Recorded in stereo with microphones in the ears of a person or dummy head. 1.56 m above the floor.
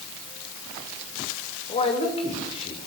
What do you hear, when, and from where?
1.7 s a man speaking: 30° left (ahead or behind), 6.5 m